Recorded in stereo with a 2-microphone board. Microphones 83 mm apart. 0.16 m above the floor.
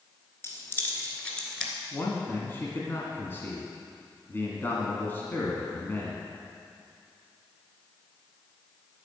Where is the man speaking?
25° left (ahead or behind), 1.5 m.